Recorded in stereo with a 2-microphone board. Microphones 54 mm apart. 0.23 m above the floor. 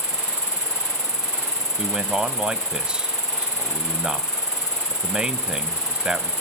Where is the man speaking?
15° right (ahead or behind), 1.0 m.